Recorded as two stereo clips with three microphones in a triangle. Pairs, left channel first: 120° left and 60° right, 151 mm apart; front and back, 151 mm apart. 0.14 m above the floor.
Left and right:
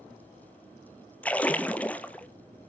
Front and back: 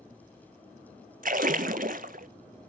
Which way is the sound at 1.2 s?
160° right.